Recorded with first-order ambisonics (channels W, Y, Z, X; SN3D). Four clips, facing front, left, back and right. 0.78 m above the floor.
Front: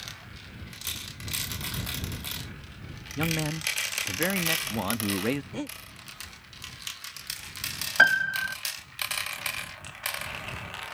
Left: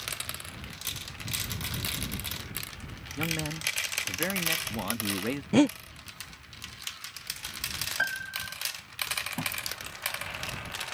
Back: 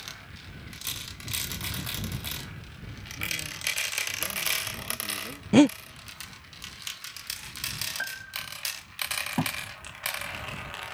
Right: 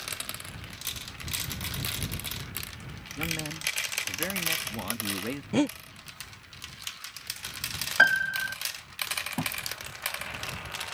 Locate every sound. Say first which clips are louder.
3.2 s a man speaking: left 1 dB, front 4 dB; 10° left
5.5 s breathing: left 4 dB, back 17 dB; 165° left
8.0 s a piano: right 12 dB, front 14 dB; 40° right
9.4 s a thud: right 1 dB, back 4 dB; 165° right